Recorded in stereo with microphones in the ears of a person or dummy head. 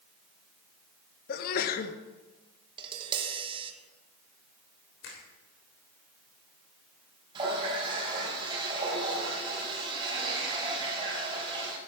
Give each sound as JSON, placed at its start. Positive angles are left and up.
{"t": 1.3, "sound": "a sneeze", "side_deg": 50, "distance_m": 1.1}
{"t": 2.8, "sound": "tapping", "side_deg": -30, "distance_m": 1.3}
{"t": 5.0, "sound": "a finger snap", "side_deg": 70, "distance_m": 3.0}
{"t": 7.3, "sound": "a running tap", "side_deg": -30, "distance_m": 3.5}